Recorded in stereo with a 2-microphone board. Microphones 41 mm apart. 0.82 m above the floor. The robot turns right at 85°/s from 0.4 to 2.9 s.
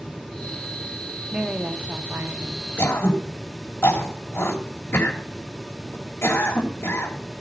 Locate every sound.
1.3 s a woman speaking: 165° right, 1.7 m; by 2.7 s 45° right, 1.7 m
2.8 s throat clearing: 70° left (ahead or behind), 3 m; by 7.4 s 80° left, 3 m